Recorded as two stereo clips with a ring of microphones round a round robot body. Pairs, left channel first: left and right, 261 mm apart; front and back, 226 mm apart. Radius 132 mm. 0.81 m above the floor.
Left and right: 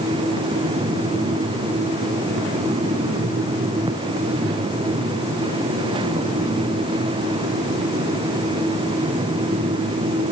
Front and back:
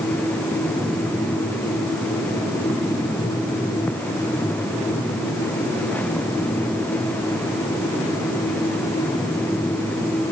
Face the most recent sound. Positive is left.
No sound to turn to.